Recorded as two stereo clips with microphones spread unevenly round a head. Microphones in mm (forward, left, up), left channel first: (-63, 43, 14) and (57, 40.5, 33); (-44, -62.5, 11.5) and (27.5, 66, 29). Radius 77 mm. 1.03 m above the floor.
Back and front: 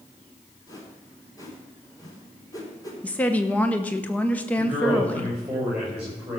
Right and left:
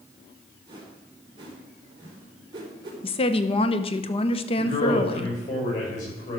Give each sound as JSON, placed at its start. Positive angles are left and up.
{"t": 0.7, "sound": "a whoosh", "azimuth_deg": 120, "distance_m": 4.0}
{"t": 3.0, "sound": "a woman speaking", "azimuth_deg": -115, "distance_m": 0.8}
{"t": 4.6, "sound": "a man speaking", "azimuth_deg": -85, "distance_m": 6.0}